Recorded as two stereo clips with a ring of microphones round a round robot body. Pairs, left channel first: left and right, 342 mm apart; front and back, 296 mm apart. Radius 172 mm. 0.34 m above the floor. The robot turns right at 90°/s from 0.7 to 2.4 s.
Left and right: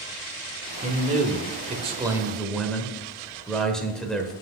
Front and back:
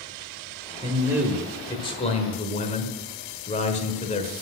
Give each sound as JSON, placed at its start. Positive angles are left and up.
{"t": 0.8, "sound": "a man speaking", "azimuth_deg": -135, "distance_m": 1.3}